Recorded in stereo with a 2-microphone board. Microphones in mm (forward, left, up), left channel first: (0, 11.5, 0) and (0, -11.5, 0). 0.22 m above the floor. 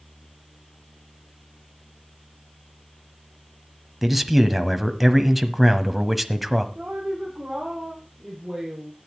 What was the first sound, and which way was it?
A man speaking, 5° right (ahead or behind).